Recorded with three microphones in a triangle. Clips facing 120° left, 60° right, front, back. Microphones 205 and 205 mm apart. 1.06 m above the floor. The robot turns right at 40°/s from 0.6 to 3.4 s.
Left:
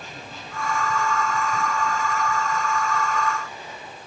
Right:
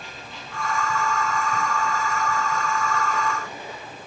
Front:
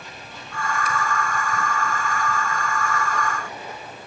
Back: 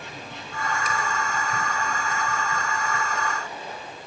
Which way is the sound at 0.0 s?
165° left.